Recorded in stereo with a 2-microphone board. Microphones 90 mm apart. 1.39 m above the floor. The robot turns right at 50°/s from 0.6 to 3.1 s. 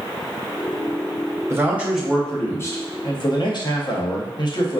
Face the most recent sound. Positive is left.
turn(degrees=50)